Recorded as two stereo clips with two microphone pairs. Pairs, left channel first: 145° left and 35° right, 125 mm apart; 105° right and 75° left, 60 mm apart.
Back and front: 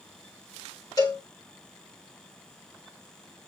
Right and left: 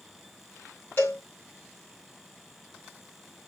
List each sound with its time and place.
1.0 s a cowbell: 155° right, 7 m